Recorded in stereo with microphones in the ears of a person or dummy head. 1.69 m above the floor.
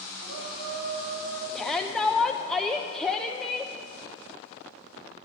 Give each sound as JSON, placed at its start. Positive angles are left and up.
{"t": 0.2, "sound": "a shout", "side_deg": -65, "distance_m": 7.5}
{"t": 1.6, "sound": "a shout", "side_deg": 0, "distance_m": 0.6}